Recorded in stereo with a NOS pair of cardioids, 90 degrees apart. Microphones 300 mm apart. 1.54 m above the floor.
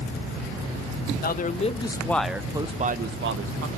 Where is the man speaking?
30° left, 1.4 m; by 3.7 s 55° right, 1.3 m.